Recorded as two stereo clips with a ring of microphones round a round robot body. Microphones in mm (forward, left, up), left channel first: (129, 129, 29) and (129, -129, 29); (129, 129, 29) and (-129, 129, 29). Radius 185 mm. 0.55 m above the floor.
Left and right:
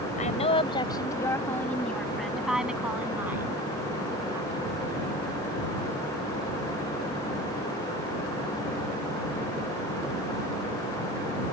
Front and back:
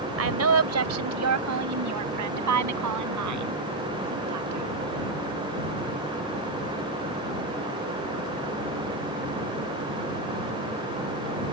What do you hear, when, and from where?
0.2 s a woman speaking: 160° left; by 4.7 s 170° right